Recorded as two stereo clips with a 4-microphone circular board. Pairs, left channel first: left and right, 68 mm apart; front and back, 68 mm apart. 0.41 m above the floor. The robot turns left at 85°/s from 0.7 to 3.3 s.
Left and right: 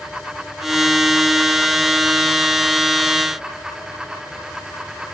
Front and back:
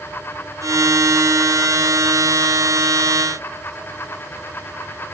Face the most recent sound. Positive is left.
No sound to turn to.